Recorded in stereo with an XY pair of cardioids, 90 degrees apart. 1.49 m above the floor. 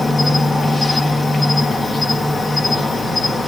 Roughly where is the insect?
Ahead left.